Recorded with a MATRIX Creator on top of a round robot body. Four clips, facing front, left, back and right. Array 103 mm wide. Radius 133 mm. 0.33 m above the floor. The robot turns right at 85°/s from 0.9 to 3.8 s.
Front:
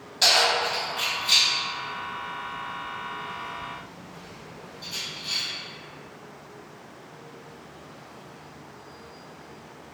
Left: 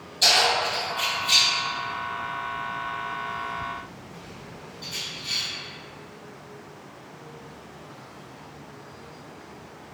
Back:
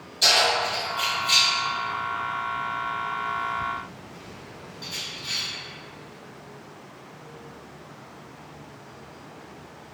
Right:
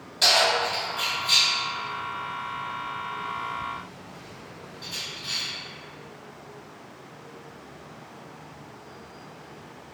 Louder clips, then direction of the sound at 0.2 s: Even, even; 30° right.